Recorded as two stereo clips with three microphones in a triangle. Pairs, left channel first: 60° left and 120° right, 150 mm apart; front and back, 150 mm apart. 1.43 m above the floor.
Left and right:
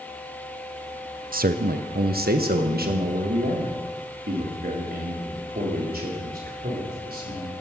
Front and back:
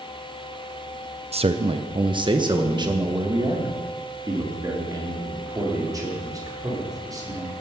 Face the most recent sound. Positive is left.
turn(degrees=-115)